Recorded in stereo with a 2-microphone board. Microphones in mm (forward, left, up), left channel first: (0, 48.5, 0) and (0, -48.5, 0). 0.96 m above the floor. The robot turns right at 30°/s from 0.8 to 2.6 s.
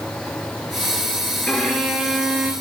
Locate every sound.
1.5 s a violin: 165° left, 3 m; by 2.5 s 160° right, 3 m